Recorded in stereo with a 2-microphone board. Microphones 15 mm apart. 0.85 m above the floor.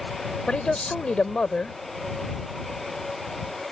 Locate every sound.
0.5 s a man speaking: 80° left